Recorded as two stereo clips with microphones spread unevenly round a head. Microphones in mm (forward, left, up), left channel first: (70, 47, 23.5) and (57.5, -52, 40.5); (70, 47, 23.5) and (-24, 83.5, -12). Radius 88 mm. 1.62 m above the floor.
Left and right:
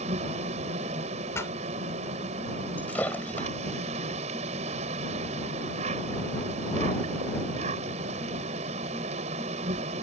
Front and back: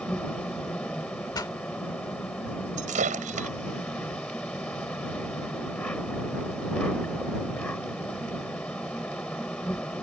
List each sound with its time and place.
0.0 s an insect: 105° right
1.3 s a pop: 15° left
2.8 s breaking glass: 165° left